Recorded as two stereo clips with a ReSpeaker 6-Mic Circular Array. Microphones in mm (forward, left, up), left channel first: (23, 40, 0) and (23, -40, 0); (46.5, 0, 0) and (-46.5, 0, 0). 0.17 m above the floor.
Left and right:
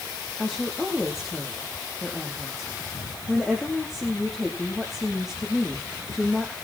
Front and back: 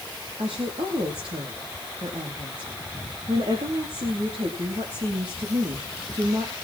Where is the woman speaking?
Straight behind, 7 m.